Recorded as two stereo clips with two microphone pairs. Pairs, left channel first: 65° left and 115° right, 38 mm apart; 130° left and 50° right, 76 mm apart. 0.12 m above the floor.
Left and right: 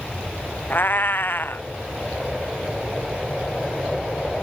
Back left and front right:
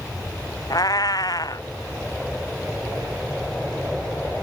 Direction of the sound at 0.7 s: 100° left.